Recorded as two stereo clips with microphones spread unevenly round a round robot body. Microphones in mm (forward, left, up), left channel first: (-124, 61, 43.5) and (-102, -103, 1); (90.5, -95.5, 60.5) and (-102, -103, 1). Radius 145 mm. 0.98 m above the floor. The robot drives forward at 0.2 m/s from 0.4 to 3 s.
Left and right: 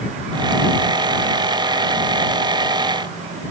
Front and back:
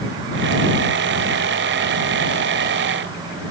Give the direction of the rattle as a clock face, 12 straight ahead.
No rattle in this recording.